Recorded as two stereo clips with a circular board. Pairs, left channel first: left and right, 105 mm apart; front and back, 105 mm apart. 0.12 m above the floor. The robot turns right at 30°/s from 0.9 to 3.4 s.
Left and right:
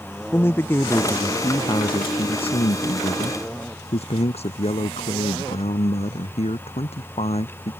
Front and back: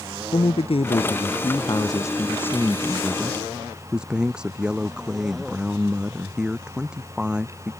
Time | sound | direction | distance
0.3 | a man speaking | 25° left | ?